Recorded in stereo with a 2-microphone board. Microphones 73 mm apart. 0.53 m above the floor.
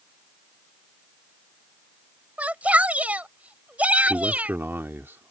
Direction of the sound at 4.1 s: 30° right (ahead or behind).